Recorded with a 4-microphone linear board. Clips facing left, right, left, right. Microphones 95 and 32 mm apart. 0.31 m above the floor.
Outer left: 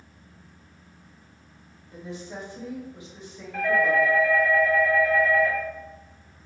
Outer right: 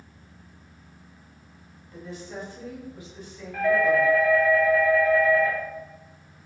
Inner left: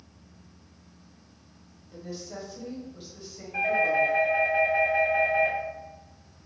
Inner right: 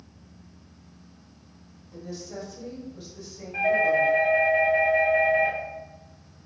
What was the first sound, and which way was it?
A woman speaking, 20° left (ahead or behind).